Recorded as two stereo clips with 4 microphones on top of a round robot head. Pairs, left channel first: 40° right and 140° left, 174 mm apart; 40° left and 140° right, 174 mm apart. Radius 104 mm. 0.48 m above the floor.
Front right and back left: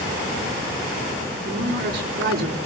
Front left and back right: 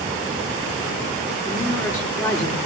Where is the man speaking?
110° left, 5.5 m.